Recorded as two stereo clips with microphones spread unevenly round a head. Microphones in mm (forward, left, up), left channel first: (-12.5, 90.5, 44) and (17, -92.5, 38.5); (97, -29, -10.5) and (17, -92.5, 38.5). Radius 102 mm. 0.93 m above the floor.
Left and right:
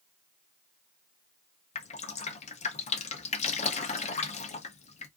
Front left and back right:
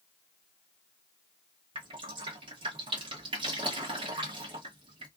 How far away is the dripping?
About 0.6 m.